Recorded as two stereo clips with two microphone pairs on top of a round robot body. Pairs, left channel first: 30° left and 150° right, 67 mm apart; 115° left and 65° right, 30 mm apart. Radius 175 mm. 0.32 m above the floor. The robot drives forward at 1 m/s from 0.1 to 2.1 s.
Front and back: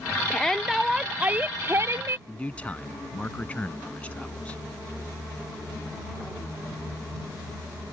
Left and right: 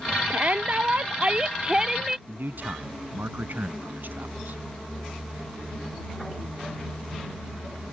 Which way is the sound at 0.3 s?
55° right.